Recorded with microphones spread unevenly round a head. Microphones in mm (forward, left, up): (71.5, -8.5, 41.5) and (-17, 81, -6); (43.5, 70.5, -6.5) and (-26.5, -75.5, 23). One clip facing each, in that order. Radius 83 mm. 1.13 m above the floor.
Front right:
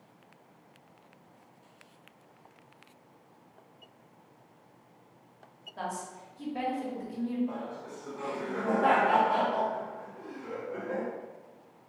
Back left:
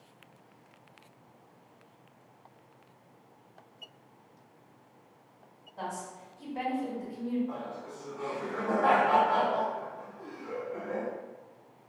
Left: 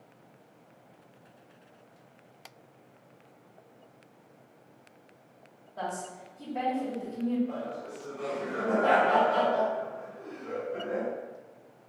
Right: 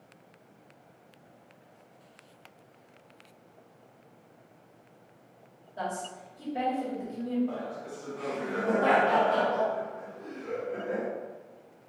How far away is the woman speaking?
About 1.5 m.